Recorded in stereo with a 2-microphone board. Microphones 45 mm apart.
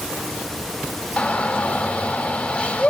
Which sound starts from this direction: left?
A shout, at 1.2 s.